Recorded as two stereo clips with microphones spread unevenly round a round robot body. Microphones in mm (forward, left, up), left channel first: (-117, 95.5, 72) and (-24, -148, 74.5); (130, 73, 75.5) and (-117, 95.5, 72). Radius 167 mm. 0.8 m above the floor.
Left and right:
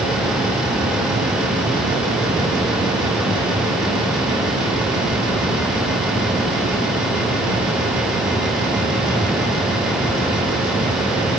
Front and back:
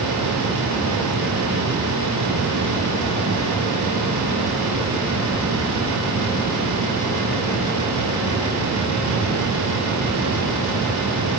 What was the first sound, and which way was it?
Only background noise.